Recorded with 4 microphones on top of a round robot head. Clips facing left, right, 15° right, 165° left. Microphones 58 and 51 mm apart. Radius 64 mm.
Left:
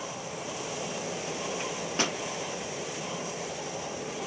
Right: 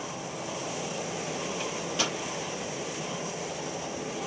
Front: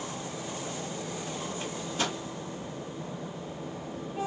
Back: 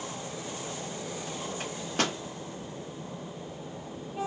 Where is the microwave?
140° left, 1.1 m.